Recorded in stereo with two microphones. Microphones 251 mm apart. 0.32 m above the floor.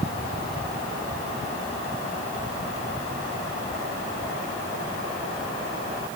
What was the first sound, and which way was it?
Only background noise.